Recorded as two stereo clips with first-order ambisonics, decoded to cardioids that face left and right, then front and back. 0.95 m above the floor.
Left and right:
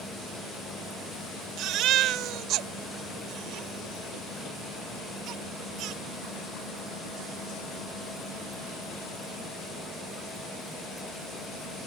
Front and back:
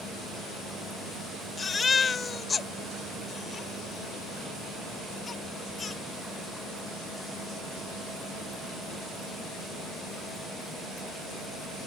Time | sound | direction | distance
1.6 | a baby crying | 65° right | ?